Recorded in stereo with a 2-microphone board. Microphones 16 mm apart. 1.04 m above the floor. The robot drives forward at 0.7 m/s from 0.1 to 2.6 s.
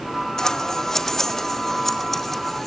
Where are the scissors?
35° left (ahead or behind), 1.0 m; by 2.7 s 15° left (ahead or behind), 2.5 m.